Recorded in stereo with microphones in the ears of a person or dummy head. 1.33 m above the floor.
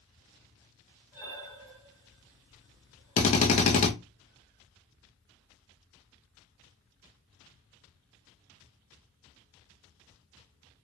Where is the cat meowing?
No cat meowing in this recording.